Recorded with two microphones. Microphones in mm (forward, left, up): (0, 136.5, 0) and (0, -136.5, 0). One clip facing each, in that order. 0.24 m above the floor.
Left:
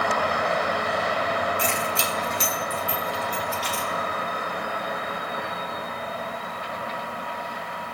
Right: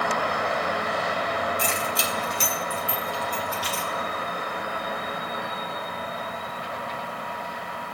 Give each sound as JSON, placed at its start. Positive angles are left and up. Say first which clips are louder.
{"t": 1.6, "sound": "keys jangling", "louder": "left 1 dB", "side_deg": -50, "distance_m": 1.4}